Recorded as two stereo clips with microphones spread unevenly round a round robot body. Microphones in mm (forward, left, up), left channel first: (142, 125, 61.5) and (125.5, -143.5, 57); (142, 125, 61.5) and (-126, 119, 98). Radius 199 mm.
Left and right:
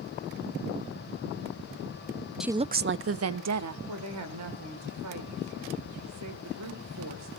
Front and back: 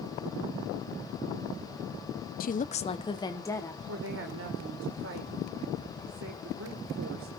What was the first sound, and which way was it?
A woman speaking, 5° right.